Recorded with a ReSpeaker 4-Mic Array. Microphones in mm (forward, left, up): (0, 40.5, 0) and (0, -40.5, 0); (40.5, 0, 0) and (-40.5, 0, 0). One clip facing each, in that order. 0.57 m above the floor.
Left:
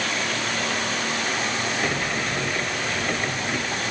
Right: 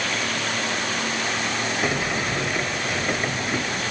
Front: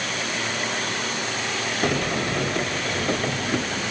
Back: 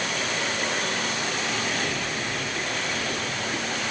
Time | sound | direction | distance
1.8 | a sliding door | 10° right | 0.6 m